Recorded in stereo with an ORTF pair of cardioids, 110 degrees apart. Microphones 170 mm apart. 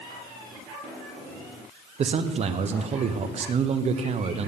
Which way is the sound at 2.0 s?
40° right.